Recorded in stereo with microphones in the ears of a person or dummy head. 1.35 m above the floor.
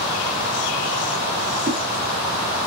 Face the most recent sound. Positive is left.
turn(degrees=5)  # may be behind; listen again after turning